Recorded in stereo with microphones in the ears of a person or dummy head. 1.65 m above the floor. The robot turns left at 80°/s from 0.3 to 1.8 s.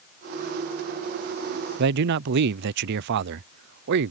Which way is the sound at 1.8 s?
65° right (ahead or behind).